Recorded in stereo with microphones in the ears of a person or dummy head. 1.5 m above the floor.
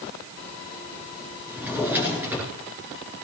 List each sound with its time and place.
1.5 s a drawer: 10° right (ahead or behind), 7 m